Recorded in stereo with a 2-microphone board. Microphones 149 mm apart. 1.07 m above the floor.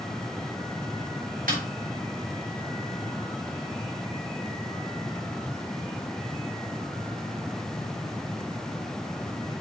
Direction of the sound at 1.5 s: 70° right (ahead or behind).